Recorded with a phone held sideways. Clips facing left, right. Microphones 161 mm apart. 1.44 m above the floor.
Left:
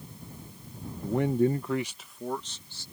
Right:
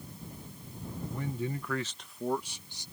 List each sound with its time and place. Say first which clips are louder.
1.0 s a man speaking: left 12 dB; 80° left; by 2.9 s 20° right (ahead or behind)